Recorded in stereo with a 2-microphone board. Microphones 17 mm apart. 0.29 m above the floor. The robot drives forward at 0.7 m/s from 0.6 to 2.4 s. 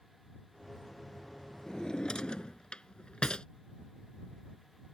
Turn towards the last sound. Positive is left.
turn(degrees=70)  # may be behind; listen again after turning